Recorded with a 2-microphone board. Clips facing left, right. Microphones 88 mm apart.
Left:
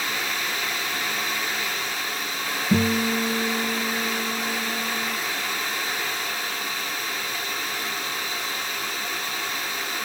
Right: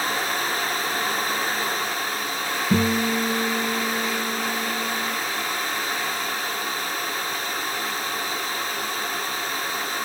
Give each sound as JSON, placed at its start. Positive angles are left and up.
{"t": 2.7, "sound": "a guitar", "side_deg": -40, "distance_m": 4.5}